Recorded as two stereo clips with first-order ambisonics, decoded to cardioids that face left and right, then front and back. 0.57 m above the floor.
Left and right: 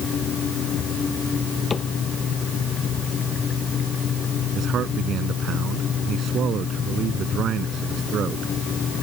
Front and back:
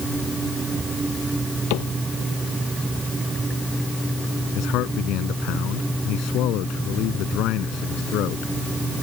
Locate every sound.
1.7 s a cupboard door: 15° left
4.5 s a man speaking: 35° right